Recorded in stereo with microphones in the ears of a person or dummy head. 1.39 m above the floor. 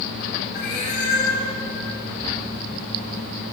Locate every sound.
0.5 s a cat meowing: 55° left (ahead or behind), 3 m